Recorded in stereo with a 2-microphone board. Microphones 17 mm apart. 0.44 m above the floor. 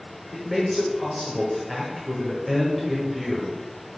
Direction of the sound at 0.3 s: 5° right (ahead or behind).